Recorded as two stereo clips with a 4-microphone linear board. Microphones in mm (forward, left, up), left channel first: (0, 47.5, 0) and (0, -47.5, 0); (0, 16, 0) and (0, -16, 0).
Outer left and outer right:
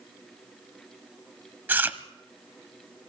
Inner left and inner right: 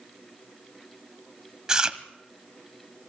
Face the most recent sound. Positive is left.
turn(degrees=-20)  # may be behind; listen again after turning